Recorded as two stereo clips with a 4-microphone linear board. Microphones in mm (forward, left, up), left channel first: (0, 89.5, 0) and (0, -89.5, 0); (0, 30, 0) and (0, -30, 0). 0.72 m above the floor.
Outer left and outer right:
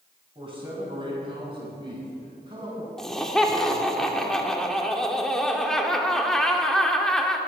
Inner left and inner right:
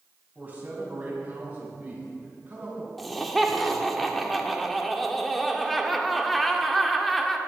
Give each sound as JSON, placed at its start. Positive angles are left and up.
{"t": 0.3, "sound": "a man speaking", "side_deg": -30, "distance_m": 5.0}
{"t": 3.0, "sound": "laughter", "side_deg": 0, "distance_m": 1.7}